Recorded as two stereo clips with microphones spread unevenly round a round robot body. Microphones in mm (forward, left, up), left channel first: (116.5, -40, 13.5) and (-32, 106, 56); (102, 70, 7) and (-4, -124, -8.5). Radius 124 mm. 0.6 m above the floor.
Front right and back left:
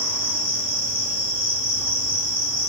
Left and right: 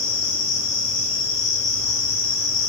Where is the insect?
65° left, 3 m.